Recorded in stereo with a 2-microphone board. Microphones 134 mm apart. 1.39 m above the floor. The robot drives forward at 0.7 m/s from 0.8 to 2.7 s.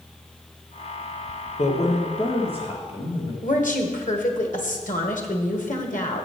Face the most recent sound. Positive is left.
turn(degrees=75)  # may be behind; listen again after turning